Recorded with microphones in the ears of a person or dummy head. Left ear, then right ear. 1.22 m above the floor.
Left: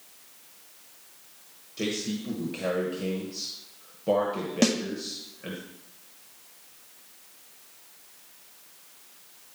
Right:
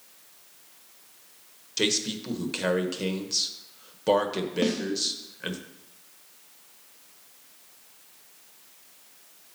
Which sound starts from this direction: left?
A snare drum, at 4.6 s.